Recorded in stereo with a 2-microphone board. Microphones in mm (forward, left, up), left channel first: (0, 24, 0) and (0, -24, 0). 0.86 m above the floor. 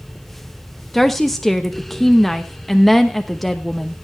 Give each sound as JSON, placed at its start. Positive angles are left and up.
{"t": 0.9, "sound": "a woman speaking", "side_deg": 0, "distance_m": 0.9}